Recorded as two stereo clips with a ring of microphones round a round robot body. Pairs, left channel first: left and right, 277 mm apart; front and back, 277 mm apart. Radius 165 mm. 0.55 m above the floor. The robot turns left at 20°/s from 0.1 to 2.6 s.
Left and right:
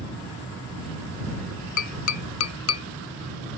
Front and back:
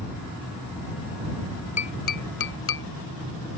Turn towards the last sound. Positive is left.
turn(degrees=50)